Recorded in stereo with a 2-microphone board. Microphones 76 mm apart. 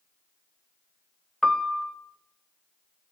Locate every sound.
1.4 s a piano: 5° left (ahead or behind), 0.7 m